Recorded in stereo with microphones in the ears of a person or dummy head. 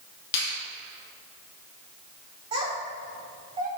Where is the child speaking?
30° right (ahead or behind), 3 m.